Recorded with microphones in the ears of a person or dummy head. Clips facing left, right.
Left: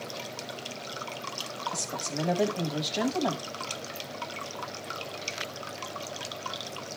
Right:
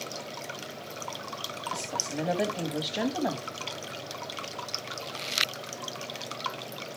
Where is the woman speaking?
5° right (ahead or behind), 1.4 m.